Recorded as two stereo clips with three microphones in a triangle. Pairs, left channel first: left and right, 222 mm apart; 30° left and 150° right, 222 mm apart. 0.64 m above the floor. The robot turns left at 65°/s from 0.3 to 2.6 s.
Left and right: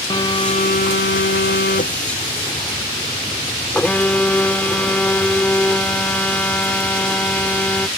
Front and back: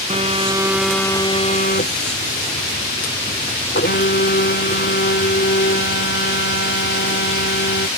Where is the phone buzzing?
155° left; by 7.9 s 5° left.